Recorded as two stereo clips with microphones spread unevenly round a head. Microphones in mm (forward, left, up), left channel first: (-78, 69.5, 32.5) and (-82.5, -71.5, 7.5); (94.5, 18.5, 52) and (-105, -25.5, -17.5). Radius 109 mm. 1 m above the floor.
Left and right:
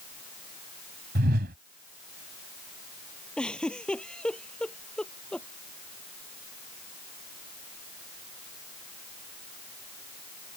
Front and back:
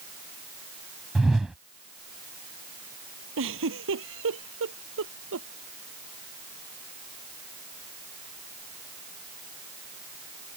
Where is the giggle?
170° left.